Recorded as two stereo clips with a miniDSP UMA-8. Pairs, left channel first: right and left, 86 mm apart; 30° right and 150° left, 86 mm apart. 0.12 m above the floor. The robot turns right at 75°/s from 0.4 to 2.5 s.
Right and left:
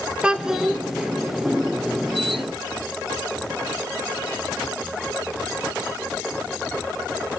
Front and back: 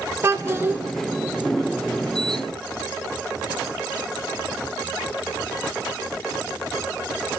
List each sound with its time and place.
0.2 s a child speaking: 160° left, 0.7 m; by 0.8 s 170° right, 0.7 m